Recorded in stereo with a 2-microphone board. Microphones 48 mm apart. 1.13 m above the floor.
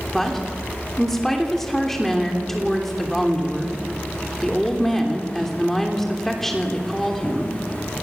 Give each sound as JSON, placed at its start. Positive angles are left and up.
{"t": 0.1, "sound": "a woman speaking", "side_deg": 5, "distance_m": 3.0}